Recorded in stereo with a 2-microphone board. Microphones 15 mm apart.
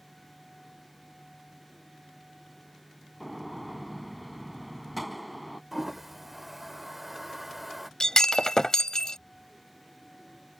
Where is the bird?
No bird in this recording.